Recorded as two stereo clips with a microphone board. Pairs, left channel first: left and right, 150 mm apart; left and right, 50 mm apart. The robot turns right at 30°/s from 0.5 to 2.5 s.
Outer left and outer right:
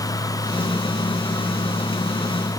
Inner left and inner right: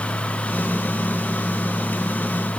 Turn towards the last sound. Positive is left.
No sound to turn to.